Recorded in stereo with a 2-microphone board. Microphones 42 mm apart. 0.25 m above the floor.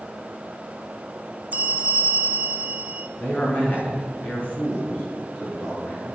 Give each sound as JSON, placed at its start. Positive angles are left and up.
{"t": 1.5, "sound": "a bell", "side_deg": -35, "distance_m": 0.5}
{"t": 3.2, "sound": "a man speaking", "side_deg": 35, "distance_m": 3.0}